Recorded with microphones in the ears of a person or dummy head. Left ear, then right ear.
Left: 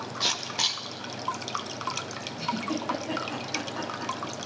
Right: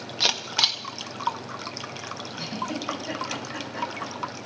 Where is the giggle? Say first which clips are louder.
Left 1 dB; 85° right, 7.5 m.